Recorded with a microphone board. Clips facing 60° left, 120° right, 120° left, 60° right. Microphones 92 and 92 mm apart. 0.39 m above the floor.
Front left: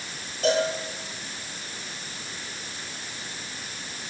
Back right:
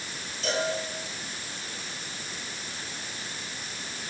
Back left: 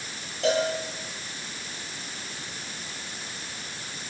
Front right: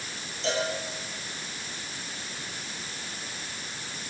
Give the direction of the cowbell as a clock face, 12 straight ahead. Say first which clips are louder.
Front left 6 dB, back left 5 dB; 9 o'clock.